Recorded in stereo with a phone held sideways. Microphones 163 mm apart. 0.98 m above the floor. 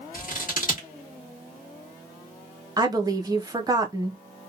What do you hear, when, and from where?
0.1 s scissors: 55° left (ahead or behind), 1.1 m
2.8 s a woman speaking: 25° right (ahead or behind), 0.6 m